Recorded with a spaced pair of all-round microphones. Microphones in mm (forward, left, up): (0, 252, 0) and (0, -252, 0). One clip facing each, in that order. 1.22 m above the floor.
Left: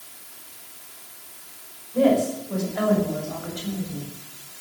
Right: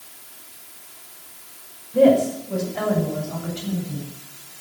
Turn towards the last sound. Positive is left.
turn(degrees=-45)  # may be behind; listen again after turning